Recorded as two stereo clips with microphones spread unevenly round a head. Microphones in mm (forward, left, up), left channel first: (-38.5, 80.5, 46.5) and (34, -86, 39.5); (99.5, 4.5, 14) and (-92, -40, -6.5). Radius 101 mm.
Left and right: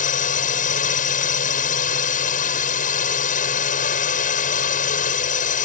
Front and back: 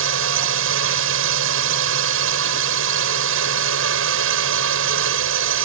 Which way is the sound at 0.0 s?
160° left.